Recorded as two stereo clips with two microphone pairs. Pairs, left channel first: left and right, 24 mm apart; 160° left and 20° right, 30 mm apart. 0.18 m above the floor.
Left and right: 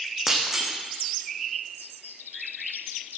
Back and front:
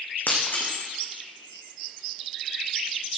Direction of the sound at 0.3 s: 175° right.